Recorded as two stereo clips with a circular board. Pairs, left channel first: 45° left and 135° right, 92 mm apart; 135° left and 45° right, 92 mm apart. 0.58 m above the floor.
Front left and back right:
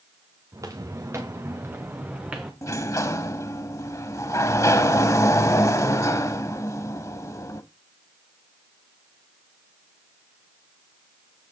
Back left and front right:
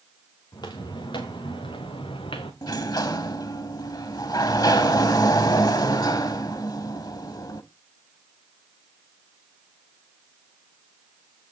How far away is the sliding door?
About 0.7 m.